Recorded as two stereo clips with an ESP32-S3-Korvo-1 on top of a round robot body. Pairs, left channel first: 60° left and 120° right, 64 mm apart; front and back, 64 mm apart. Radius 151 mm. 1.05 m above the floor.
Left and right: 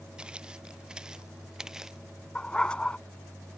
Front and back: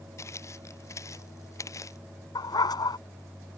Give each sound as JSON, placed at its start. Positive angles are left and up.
{"t": 0.2, "sound": "footsteps", "azimuth_deg": -45}
{"t": 2.4, "sound": "a dog barking", "azimuth_deg": -15}